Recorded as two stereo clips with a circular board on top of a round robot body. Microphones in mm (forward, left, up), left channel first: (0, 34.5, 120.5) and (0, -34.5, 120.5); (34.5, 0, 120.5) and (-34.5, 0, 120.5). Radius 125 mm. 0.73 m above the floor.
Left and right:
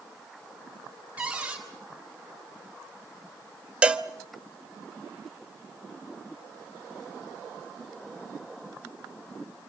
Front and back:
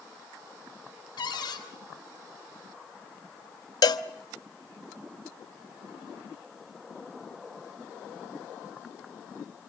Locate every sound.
1.2 s a cupboard door: 15° right, 4.5 m
3.8 s a cowbell: 15° right, 1.1 m